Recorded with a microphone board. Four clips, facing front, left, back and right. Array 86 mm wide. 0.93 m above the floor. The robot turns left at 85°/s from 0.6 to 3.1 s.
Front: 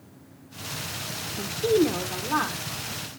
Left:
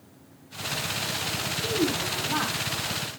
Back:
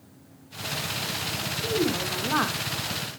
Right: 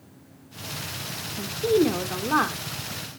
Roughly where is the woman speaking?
Ahead right.